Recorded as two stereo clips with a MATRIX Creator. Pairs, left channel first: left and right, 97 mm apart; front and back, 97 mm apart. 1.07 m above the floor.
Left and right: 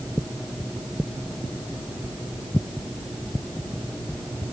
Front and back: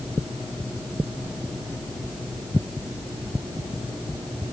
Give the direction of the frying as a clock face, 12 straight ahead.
No frying in this recording.